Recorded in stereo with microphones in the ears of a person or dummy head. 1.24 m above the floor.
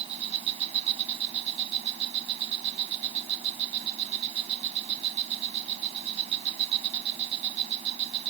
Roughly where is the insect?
Right.